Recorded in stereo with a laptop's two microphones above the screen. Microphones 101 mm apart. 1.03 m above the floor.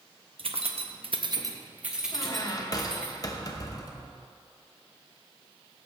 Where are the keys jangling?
60° right (ahead or behind), 0.9 m; by 3.1 s 10° left (ahead or behind), 1.8 m.